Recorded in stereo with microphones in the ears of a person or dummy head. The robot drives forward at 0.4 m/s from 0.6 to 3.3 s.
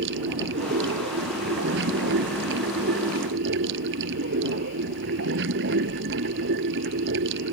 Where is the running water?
75° right (ahead or behind); by 7.5 s 80° right.